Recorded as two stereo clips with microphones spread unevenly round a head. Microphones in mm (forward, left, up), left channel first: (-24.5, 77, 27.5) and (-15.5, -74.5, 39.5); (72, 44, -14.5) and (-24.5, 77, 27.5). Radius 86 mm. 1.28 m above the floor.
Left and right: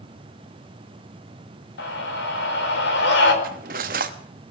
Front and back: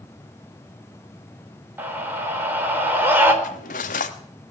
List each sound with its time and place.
1.8 s a scream: 90° left, 4 m
3.4 s cutlery clinking: 55° right, 1.1 m